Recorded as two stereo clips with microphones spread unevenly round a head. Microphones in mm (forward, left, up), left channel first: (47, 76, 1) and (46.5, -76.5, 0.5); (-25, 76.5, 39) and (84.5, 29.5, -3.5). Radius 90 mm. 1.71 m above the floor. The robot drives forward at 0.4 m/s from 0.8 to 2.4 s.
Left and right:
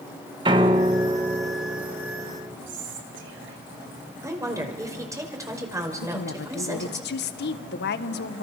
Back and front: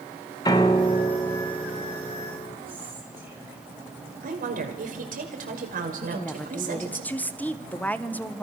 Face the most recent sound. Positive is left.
turn(degrees=80)